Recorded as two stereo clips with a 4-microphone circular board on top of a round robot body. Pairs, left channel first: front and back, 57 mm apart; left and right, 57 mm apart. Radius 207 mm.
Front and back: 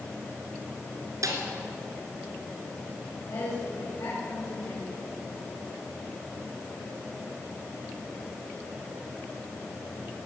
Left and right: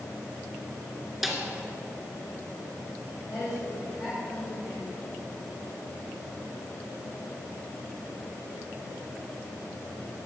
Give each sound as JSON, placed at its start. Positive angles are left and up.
{"t": 1.2, "sound": "a snare drum", "azimuth_deg": -170, "distance_m": 2.5}
{"t": 3.3, "sound": "a woman speaking", "azimuth_deg": -10, "distance_m": 4.5}